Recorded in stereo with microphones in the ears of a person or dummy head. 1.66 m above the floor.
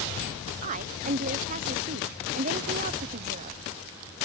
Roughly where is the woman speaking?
Right.